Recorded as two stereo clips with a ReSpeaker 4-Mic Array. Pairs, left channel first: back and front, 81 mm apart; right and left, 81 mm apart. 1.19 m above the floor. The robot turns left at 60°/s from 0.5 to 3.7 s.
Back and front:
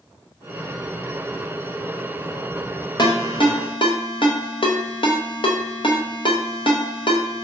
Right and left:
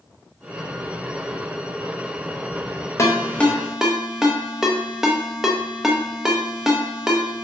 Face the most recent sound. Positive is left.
turn(degrees=175)